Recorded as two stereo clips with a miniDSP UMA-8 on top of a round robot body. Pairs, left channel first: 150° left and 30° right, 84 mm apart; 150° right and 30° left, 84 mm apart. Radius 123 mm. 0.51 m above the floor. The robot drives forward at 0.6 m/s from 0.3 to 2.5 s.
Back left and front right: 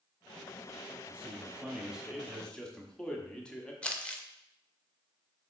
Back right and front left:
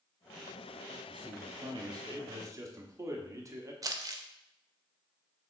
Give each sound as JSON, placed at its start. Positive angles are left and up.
{"t": 1.1, "sound": "a man speaking", "azimuth_deg": 35, "distance_m": 1.5}
{"t": 3.8, "sound": "crumpling", "azimuth_deg": 75, "distance_m": 0.6}